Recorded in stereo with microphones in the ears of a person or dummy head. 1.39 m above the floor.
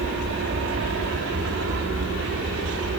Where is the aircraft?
65° right (ahead or behind); by 3.0 s 75° right (ahead or behind).